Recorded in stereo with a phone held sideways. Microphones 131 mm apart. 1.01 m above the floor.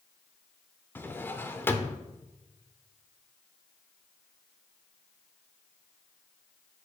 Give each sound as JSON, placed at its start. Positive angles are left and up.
{"t": 0.9, "sound": "a drawer", "side_deg": 15, "distance_m": 0.7}